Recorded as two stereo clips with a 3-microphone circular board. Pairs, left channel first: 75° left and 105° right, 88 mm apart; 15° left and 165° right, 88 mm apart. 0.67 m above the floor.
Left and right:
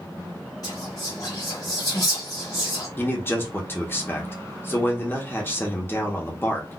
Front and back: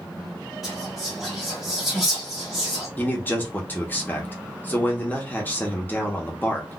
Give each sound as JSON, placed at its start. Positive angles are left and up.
{"t": 0.6, "sound": "whispering", "azimuth_deg": 110, "distance_m": 1.0}
{"t": 3.0, "sound": "a man speaking", "azimuth_deg": 55, "distance_m": 0.9}